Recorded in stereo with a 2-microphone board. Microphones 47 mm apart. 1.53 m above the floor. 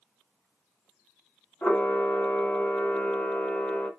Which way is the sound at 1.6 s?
35° left (ahead or behind).